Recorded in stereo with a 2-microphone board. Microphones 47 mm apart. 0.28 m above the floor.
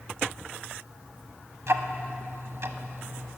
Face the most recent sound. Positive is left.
turn(degrees=-55)  # may be behind; listen again after turning